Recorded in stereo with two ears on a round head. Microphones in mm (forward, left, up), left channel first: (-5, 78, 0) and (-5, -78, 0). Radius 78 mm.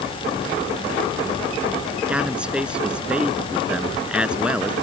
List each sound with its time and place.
2.1 s a man speaking: 5° right (ahead or behind)